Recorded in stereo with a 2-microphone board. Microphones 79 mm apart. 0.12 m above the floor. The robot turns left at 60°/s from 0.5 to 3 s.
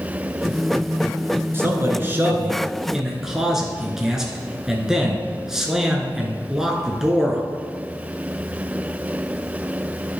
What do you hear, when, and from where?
1.5 s a man speaking: 80° right, 1.2 m; by 7.4 s 170° right, 1.2 m